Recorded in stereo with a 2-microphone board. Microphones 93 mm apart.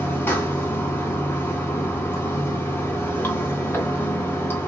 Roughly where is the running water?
Left.